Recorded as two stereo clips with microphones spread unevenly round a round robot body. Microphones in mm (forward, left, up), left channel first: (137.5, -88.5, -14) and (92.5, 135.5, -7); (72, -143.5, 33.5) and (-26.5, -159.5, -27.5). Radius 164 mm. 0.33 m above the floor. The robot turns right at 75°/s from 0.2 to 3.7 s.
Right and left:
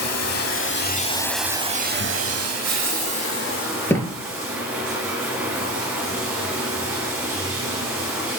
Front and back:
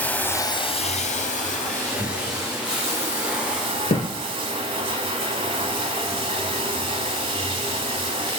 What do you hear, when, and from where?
0.0 s running water: 75° right, 0.7 m; by 8.4 s 175° right, 0.7 m
2.0 s tearing paper: 150° left, 1.7 m; by 2.1 s 165° left, 1.7 m
3.9 s a thud: 5° left, 1.7 m